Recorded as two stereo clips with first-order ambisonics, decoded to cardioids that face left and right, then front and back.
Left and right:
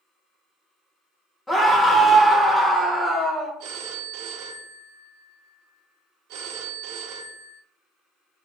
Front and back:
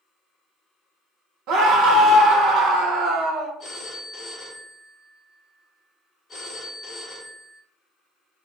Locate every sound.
1.5 s a scream: 170° left, 0.9 m
3.6 s a phone ringing: 70° right, 0.6 m